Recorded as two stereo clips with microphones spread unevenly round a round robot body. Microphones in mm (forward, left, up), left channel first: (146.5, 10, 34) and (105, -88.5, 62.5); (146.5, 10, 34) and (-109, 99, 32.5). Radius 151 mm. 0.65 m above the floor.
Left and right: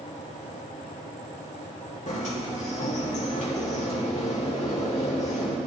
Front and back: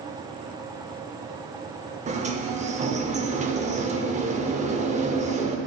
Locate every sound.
2.1 s a sliding door: 95° left, 0.8 m